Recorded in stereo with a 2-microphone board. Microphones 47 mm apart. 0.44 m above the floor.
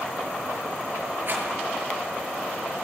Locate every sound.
1.3 s a rattle: 50° right (ahead or behind), 7 m